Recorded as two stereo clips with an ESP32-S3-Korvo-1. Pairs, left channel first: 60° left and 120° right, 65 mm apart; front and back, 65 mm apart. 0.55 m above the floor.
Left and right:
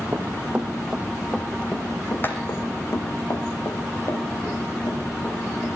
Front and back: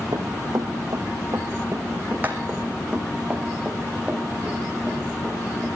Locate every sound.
0.1 s running footsteps: 175° right, 1.5 m; by 5.7 s 90° left, 5 m